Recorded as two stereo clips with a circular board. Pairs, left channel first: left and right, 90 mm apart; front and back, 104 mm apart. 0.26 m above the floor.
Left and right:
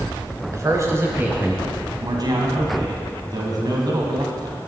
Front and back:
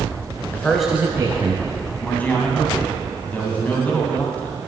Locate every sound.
0.5 s a man speaking: 60° right, 1.3 m; by 1.6 s 165° right, 1.6 m
2.0 s a man speaking: 70° right, 1.8 m